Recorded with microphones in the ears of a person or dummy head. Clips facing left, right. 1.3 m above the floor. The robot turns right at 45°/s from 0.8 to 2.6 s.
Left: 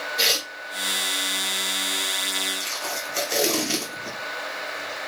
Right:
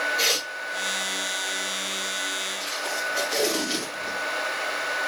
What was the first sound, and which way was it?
Tearing paper, 15° left (ahead or behind).